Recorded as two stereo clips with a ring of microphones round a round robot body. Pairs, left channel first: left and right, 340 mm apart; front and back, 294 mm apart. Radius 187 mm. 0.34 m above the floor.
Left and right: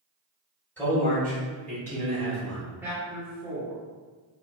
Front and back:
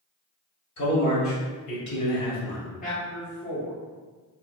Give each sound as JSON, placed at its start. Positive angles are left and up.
{"t": 0.8, "sound": "a man speaking", "azimuth_deg": 5, "distance_m": 1.9}
{"t": 2.8, "sound": "a man speaking", "azimuth_deg": -10, "distance_m": 1.4}